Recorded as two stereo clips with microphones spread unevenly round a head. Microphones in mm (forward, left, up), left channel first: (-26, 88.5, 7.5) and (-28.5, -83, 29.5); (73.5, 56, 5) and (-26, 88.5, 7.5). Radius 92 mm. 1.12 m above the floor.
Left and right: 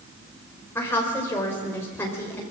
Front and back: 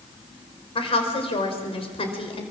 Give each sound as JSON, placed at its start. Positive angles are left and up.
{"t": 0.8, "sound": "a woman speaking", "azimuth_deg": 10, "distance_m": 4.5}